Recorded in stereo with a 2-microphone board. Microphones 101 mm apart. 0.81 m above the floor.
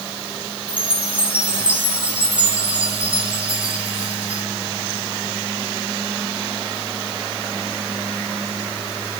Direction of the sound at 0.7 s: 15° right (ahead or behind).